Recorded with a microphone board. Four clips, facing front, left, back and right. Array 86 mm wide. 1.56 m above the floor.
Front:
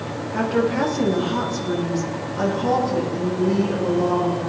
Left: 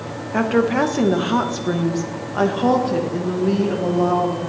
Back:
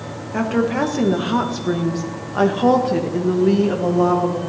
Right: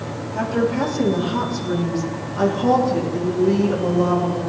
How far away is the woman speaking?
About 1.8 m.